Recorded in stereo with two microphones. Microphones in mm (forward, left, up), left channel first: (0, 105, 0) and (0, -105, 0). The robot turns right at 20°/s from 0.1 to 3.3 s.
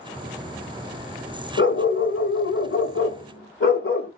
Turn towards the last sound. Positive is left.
turn(degrees=105)